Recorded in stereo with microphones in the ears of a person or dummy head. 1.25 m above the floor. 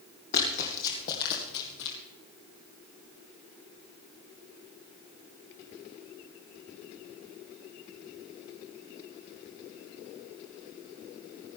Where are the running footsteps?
40° left (ahead or behind), 2.5 m; by 2.0 s 50° left (ahead or behind), 1.9 m.